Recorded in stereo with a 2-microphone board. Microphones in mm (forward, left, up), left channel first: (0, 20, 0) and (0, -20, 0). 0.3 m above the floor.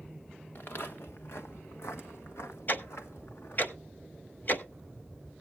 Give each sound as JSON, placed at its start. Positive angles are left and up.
{"t": 0.6, "sound": "footsteps", "side_deg": 55, "distance_m": 1.4}
{"t": 2.7, "sound": "ticking", "side_deg": 50, "distance_m": 1.0}